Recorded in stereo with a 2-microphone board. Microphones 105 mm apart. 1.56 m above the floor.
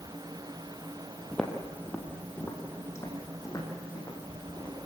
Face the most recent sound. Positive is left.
turn(degrees=35)  # may be behind; listen again after turning